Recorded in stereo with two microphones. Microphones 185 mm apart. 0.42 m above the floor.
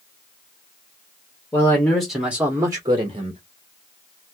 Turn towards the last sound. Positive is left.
turn(degrees=-35)  # may be behind; listen again after turning